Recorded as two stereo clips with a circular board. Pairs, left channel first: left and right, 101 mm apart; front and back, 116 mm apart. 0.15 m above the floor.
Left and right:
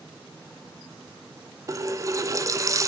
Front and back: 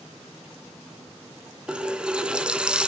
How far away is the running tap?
About 1.1 m.